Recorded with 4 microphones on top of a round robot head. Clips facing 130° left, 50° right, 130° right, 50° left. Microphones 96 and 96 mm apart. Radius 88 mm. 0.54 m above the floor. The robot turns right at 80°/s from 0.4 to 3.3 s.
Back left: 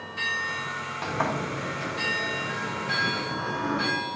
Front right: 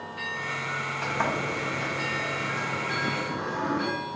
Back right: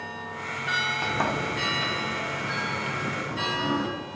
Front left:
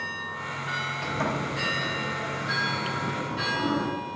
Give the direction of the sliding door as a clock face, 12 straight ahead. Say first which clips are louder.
Back left 1 dB, even; 5 o'clock.